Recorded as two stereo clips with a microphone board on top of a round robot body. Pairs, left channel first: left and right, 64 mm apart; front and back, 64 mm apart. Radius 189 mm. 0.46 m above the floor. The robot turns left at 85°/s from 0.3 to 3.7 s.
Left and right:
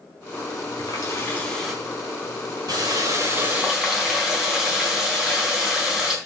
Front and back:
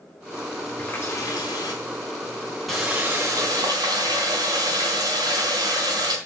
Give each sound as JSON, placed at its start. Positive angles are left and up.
{"t": 0.8, "sound": "a running tap", "azimuth_deg": 75, "distance_m": 4.0}